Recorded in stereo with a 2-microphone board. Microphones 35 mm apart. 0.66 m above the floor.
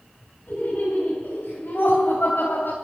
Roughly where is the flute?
I don't hear a flute.